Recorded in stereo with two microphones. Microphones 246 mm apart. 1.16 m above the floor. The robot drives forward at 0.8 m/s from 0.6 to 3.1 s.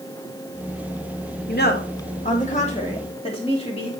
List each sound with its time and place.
1.5 s a woman speaking: 45° left (ahead or behind), 1.5 m; by 3.9 s 25° left (ahead or behind), 2.5 m